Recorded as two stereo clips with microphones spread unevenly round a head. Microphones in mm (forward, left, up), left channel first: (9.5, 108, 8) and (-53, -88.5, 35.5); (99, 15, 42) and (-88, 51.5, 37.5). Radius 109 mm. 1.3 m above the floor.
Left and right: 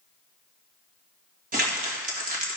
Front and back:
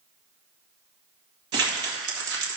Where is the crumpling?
155° right, 2 m.